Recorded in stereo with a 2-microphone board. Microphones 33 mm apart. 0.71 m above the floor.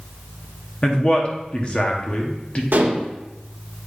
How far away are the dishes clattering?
About 1.2 m.